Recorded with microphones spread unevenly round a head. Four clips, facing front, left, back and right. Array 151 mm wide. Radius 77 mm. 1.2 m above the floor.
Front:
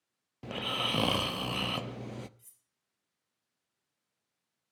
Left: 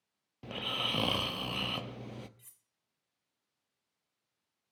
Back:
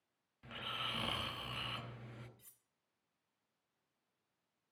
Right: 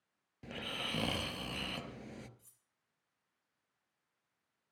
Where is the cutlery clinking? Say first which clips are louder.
Left 3 dB, back 1 dB; 95° left, 1.4 m.